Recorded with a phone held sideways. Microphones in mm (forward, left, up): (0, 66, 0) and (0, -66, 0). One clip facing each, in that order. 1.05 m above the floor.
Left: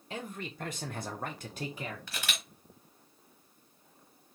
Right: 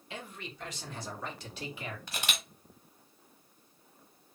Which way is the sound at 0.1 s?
40° left (ahead or behind).